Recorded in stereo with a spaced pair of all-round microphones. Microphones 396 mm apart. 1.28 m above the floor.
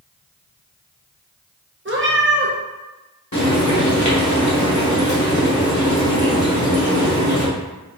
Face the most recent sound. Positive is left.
turn(degrees=45)  # may be behind; listen again after turning